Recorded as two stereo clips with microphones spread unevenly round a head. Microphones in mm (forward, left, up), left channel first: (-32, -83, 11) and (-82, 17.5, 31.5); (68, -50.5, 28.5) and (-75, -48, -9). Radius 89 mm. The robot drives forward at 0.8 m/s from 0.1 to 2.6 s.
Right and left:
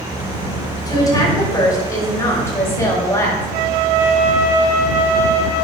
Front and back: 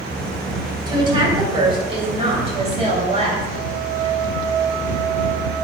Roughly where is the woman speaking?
Behind right.